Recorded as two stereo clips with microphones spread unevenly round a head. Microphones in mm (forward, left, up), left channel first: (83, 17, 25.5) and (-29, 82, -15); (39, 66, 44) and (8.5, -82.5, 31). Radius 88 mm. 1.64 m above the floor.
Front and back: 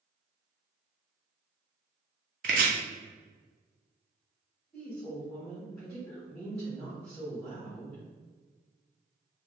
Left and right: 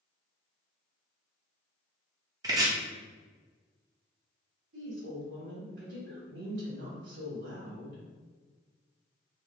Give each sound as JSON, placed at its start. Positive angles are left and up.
{"t": 2.4, "sound": "chopping", "azimuth_deg": -170, "distance_m": 0.5}
{"t": 4.7, "sound": "a woman speaking", "azimuth_deg": -115, "distance_m": 1.1}